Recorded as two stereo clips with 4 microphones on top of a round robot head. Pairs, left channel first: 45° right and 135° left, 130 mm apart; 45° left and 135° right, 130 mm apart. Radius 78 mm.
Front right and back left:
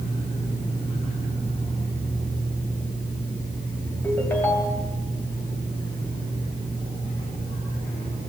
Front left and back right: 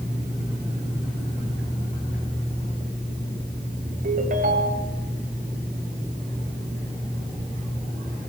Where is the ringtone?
120° right, 2.5 m.